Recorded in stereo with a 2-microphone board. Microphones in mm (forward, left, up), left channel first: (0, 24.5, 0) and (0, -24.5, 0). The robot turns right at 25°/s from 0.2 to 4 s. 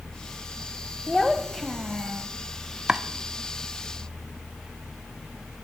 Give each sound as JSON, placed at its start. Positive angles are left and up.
{"t": 1.1, "sound": "a child speaking", "azimuth_deg": 165, "distance_m": 0.6}
{"t": 2.9, "sound": "chopping", "side_deg": -10, "distance_m": 0.6}